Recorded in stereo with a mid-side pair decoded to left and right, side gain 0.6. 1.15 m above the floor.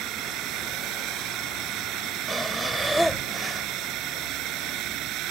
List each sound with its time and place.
0.0 s a drone: 65° right
2.3 s breathing: straight ahead